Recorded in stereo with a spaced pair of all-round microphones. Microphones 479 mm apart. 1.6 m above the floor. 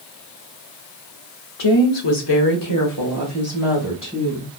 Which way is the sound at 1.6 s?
75° left (ahead or behind).